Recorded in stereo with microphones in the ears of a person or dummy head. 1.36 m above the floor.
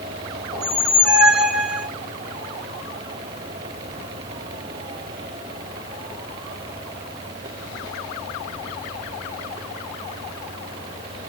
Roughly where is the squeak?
Centre.